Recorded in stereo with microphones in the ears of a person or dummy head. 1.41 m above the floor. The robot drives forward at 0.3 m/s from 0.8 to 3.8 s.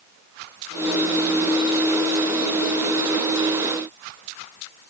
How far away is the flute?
No flute in this recording.